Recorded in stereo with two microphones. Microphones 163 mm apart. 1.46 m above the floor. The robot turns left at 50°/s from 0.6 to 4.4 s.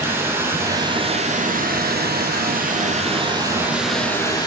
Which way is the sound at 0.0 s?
15° right.